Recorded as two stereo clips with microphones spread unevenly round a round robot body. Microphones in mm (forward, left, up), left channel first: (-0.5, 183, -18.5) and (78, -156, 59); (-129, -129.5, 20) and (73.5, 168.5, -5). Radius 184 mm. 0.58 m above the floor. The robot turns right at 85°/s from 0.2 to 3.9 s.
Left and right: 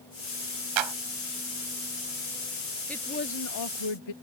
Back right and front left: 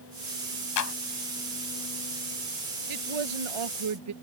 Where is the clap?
80° right; by 0.9 s 65° right.